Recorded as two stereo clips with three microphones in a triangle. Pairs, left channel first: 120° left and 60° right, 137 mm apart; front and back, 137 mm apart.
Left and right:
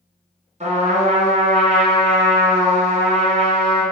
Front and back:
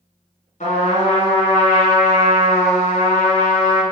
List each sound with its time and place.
0.6 s a trumpet: 30° right, 1.2 m